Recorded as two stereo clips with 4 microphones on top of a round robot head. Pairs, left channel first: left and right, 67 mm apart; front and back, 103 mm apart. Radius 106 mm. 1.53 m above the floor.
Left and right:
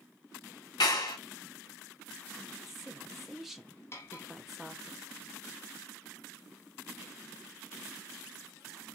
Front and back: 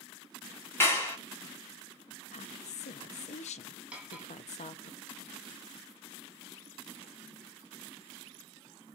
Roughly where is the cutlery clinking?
Left.